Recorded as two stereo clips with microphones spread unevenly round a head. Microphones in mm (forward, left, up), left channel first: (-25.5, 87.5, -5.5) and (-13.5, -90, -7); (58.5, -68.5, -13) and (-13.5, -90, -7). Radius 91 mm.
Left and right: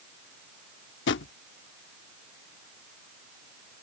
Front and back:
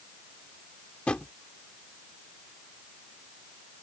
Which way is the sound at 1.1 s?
100° left.